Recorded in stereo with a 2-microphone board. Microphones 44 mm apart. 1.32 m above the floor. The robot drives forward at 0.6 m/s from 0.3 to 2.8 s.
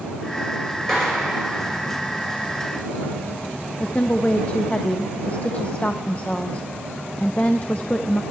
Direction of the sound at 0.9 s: 10° left (ahead or behind).